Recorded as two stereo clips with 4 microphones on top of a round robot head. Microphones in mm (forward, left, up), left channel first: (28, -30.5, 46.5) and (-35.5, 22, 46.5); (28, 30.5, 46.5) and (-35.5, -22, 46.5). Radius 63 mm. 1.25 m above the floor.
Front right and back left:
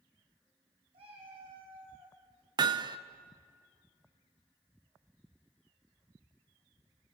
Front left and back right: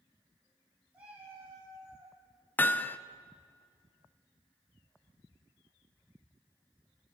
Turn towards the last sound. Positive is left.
turn(degrees=105)